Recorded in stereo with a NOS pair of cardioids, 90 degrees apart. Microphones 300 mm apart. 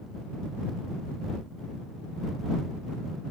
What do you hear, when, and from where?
Only background noise.